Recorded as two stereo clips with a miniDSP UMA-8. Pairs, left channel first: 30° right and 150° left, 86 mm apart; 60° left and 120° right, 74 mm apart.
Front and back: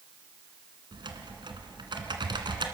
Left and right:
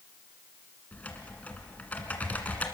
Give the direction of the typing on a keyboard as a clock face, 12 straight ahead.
8 o'clock.